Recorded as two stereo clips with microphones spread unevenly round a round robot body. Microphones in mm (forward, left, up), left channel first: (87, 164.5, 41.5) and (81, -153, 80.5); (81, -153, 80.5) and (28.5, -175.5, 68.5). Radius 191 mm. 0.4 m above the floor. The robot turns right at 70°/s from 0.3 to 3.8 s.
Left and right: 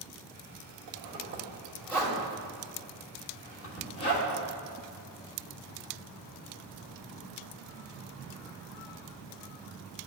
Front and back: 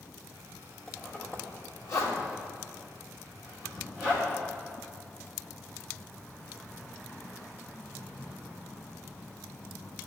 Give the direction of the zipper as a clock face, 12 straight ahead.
2 o'clock.